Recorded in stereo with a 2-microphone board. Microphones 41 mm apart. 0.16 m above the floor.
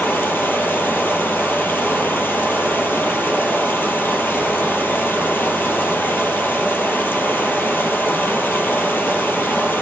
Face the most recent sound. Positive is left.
turn(degrees=55)  # may be behind; listen again after turning